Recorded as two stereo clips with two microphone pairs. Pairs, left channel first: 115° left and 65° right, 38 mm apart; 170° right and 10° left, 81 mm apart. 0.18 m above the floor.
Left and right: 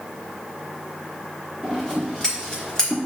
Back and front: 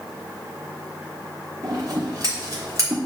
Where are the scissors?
50° left, 3 m.